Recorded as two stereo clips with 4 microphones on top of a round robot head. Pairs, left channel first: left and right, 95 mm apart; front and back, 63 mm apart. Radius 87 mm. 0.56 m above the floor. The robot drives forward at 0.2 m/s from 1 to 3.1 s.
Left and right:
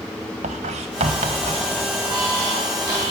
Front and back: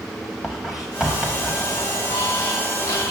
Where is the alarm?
55° right, 7.5 m.